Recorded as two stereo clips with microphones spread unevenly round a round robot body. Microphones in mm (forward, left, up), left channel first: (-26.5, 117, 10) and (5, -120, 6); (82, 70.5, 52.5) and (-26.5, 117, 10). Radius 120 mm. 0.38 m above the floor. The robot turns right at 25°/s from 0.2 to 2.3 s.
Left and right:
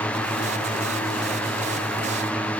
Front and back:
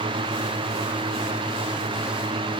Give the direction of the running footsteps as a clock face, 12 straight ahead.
I don't hear running footsteps.